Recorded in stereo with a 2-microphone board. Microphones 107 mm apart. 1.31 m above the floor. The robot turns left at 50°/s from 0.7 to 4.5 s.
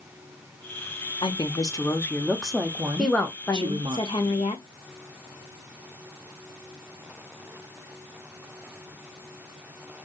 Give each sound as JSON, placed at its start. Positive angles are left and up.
{"t": 1.2, "sound": "a woman speaking", "azimuth_deg": 60, "distance_m": 0.8}
{"t": 3.0, "sound": "a woman speaking", "azimuth_deg": 180, "distance_m": 1.1}